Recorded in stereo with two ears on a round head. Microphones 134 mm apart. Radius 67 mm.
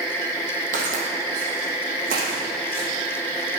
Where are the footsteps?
55° right (ahead or behind), 3 m; by 2.9 s 65° right (ahead or behind), 4.5 m.